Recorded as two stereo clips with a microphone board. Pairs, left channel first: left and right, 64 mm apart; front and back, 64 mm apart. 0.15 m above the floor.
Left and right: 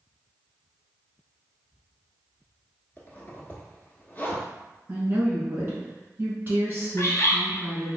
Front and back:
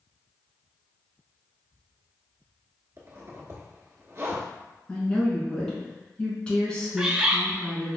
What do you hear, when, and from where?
3.0 s a zipper: 145° left, 0.8 m
4.9 s a woman speaking: 65° right, 1.3 m
7.0 s a bird: 110° left, 0.6 m